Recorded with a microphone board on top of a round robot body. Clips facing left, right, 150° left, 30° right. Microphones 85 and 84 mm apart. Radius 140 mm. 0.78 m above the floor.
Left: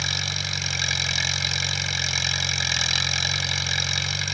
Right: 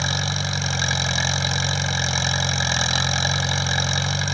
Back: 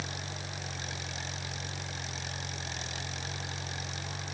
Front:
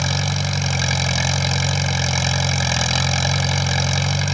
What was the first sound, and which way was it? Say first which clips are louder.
An engine running: right 6 dB, front 16 dB; 30° right.